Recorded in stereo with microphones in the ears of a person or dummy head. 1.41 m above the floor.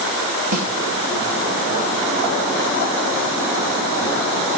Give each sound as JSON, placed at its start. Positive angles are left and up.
{"t": 0.5, "sound": "a snare drum", "side_deg": -80, "distance_m": 3.0}